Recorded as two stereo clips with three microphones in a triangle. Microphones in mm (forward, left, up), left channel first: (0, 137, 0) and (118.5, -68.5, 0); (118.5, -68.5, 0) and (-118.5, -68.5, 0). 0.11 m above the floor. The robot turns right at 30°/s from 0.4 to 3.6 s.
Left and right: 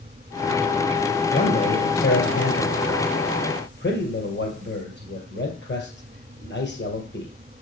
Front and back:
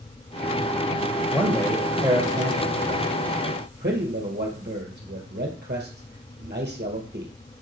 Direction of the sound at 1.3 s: 80° left.